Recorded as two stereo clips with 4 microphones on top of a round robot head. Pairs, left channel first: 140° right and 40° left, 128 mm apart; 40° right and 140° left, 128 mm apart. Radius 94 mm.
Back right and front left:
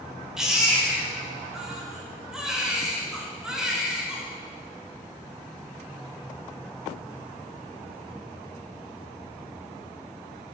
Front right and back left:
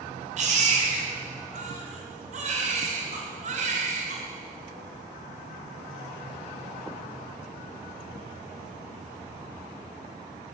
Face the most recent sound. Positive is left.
turn(degrees=125)